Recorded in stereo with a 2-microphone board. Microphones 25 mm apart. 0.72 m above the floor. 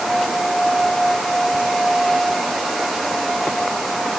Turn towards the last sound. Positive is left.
No sound to turn to.